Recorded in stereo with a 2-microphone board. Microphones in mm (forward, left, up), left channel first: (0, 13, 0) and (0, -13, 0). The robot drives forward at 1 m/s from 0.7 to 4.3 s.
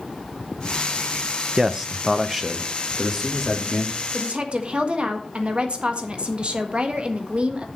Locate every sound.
1.6 s a man speaking: 20° right (ahead or behind), 0.6 m; by 4.0 s 5° right (ahead or behind), 2.5 m
4.1 s a woman speaking: 50° right (ahead or behind), 1.4 m; by 7.7 s 45° right (ahead or behind), 1.5 m